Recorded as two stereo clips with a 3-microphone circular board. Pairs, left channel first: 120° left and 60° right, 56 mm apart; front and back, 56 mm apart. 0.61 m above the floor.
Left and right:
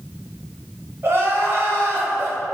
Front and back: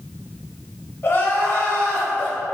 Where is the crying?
35° right, 0.9 m.